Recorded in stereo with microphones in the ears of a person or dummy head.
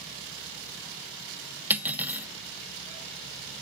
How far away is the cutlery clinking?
About 0.9 m.